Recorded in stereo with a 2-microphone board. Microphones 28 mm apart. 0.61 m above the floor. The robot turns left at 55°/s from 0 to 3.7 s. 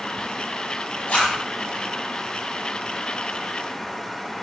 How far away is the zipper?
About 0.6 m.